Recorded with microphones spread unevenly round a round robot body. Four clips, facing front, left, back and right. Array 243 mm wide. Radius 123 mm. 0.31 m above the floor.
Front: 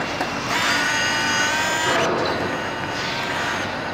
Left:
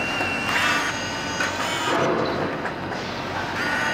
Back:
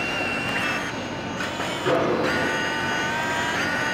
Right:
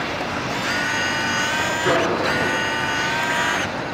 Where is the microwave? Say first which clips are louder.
Right 2 dB, back 1 dB; 95° right, 3.5 m.